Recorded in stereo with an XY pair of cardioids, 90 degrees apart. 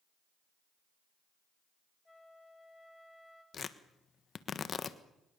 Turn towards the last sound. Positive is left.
turn(degrees=50)